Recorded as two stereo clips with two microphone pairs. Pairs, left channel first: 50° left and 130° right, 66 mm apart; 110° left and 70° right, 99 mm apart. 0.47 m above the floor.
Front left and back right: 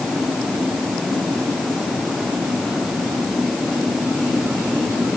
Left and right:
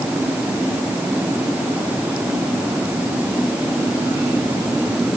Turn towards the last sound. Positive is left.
No sound to turn to.